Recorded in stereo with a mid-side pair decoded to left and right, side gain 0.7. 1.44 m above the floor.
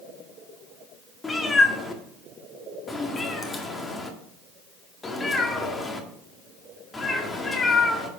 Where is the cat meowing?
20° left, 1.9 m.